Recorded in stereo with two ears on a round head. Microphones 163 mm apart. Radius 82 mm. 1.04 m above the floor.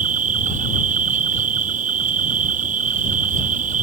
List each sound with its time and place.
0.0 s an insect: 45° right (ahead or behind)